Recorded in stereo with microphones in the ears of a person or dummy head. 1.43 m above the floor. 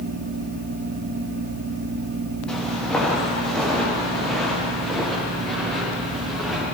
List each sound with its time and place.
2.5 s footsteps: 5° left (ahead or behind), 3.5 m; by 6.7 s centre (ahead or behind), 6 m